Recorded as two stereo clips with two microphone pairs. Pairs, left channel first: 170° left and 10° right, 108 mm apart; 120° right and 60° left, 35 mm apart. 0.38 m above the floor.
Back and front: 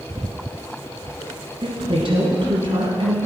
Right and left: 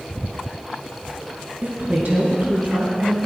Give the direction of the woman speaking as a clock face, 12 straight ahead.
11 o'clock.